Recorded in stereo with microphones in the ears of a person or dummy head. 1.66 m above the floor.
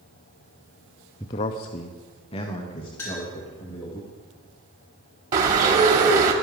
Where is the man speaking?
15° left (ahead or behind), 0.5 m; by 4.0 s 25° left (ahead or behind), 2 m.